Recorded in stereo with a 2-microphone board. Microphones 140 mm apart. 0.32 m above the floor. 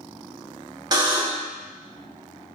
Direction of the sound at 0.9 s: 30° right (ahead or behind).